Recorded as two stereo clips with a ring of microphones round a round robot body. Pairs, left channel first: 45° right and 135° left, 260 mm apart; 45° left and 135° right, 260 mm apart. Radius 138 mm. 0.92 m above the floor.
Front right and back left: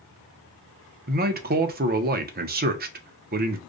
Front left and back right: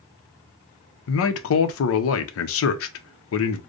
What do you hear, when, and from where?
1.1 s a man speaking: 80° left, 0.6 m